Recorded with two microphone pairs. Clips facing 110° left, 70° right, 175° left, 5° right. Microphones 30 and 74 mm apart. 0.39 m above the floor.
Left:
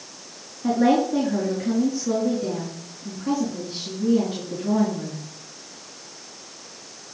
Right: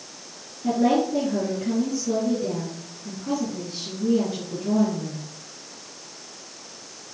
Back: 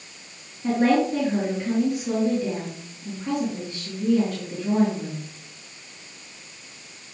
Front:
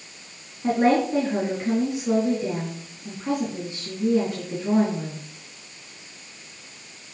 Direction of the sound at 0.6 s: 60° left.